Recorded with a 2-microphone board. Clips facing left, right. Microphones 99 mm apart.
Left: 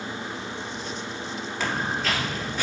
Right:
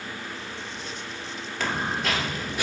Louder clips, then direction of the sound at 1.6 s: Even; 5° left (ahead or behind).